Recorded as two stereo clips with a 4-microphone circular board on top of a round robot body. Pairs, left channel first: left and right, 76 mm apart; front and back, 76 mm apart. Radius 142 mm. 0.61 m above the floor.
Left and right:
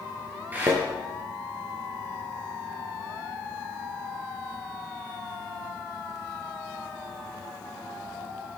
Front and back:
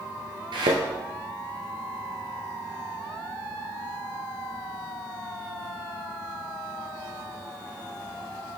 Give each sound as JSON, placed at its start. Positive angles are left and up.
{"t": 0.5, "sound": "a thud", "azimuth_deg": -160, "distance_m": 1.1}